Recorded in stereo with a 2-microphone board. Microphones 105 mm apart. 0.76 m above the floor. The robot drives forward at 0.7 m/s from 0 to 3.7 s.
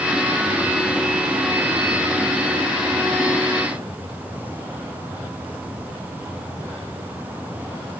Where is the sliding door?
I don't hear a sliding door.